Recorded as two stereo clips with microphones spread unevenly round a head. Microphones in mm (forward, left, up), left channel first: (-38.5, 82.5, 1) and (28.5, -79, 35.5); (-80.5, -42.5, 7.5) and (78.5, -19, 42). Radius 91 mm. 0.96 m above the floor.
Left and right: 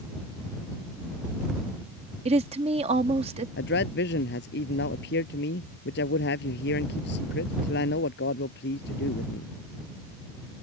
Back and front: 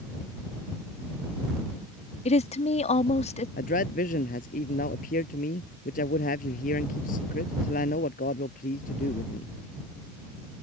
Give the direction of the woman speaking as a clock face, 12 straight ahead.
4 o'clock.